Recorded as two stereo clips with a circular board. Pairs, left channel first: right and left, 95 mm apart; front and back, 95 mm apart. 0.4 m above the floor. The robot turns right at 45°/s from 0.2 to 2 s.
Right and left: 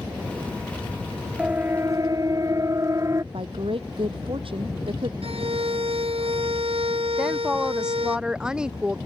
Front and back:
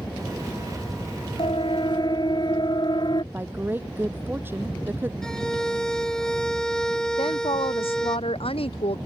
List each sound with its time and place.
1.4 s a siren: 15° left; by 3.2 s 35° left
3.3 s a woman speaking: 110° left
5.2 s a violin: 85° left
7.2 s a woman speaking: 10° left